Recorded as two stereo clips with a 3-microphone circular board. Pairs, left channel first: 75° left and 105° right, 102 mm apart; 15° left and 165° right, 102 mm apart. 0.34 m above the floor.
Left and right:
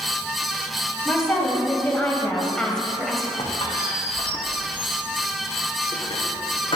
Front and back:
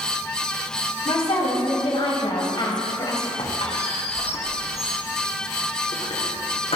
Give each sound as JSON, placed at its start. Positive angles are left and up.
{"t": 1.1, "sound": "a woman speaking", "azimuth_deg": 10, "distance_m": 2.5}
{"t": 3.4, "sound": "a squeak", "azimuth_deg": 35, "distance_m": 3.0}